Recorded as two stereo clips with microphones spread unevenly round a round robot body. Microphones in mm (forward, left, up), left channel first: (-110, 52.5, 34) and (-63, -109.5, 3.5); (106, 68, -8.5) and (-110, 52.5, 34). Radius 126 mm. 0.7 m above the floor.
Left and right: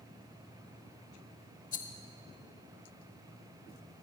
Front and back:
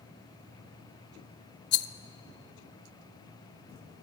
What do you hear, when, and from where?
1.7 s a rattle: 45° left, 0.9 m